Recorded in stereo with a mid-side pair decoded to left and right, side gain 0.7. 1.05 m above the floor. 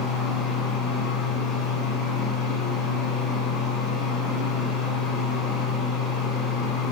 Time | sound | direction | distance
0.0 | a fan | 60° left | 1.3 m